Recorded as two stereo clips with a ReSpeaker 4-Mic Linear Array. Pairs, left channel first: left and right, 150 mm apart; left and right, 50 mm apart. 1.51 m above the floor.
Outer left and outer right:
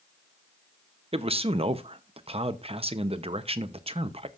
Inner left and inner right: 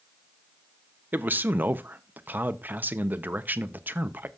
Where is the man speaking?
40° right (ahead or behind), 0.8 m.